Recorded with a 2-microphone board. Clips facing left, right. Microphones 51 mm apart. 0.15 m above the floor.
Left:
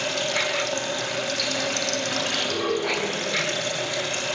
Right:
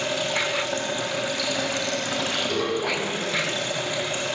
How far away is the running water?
About 6 m.